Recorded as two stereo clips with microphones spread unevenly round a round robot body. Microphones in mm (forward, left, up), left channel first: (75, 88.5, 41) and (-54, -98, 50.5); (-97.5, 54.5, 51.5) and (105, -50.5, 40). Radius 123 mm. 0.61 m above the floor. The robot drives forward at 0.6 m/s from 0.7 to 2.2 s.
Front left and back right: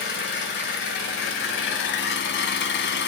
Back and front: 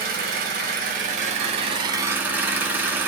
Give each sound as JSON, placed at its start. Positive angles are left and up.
{"t": 0.0, "sound": "an engine running", "azimuth_deg": 20, "distance_m": 1.5}